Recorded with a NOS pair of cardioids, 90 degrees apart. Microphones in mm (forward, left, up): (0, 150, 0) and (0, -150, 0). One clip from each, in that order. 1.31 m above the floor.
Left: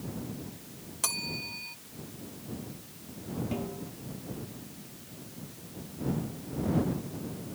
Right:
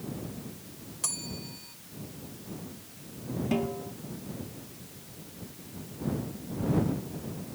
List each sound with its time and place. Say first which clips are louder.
1.0 s a bell: left 4 dB; 45° left
3.5 s a snare drum: right 6 dB; 50° right